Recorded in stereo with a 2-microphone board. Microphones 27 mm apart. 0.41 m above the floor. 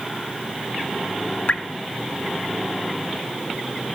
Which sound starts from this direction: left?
Dripping, at 1.5 s.